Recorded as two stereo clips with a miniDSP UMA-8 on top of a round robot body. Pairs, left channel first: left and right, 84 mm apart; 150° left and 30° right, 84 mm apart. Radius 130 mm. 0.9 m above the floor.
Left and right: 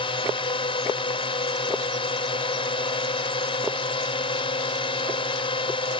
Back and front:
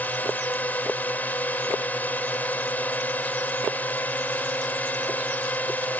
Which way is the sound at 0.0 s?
80° left.